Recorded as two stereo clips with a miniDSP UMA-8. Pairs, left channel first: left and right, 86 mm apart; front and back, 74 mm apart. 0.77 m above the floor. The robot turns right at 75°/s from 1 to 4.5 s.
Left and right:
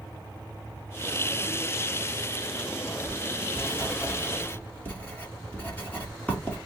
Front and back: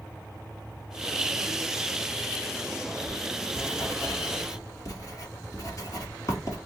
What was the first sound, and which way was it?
Writing, 85° right.